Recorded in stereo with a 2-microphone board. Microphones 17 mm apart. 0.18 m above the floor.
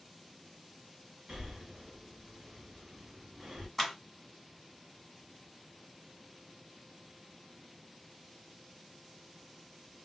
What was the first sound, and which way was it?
Breathing, 35° right (ahead or behind).